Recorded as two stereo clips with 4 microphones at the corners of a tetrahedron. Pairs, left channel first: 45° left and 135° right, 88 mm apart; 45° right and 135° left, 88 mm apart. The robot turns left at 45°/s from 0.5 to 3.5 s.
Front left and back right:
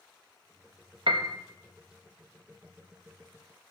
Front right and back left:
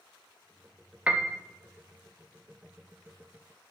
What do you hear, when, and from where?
1.1 s a piano: 150° right, 0.7 m; by 1.4 s 165° right, 0.7 m